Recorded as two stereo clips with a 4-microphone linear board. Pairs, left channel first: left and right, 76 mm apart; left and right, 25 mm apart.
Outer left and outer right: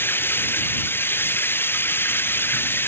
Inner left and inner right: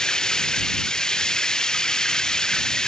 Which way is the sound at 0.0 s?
30° left (ahead or behind).